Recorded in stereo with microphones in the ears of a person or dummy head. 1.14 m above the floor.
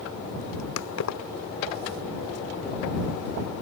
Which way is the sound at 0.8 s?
75° left (ahead or behind).